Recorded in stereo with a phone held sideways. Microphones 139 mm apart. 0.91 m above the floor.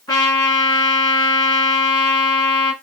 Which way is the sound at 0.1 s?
30° left (ahead or behind).